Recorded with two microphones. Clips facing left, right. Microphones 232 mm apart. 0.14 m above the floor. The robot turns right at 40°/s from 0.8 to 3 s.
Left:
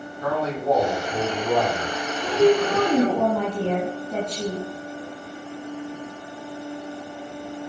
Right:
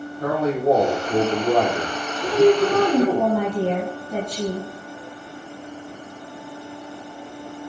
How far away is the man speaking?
About 5 m.